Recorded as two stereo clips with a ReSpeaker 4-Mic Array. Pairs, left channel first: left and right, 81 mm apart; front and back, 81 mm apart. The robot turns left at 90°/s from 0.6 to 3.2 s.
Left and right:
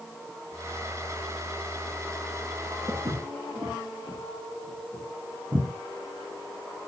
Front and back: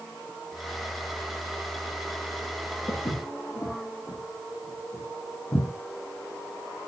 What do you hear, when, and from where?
2.9 s footsteps: 35° right, 9.5 m; by 5.7 s 60° right, 12 m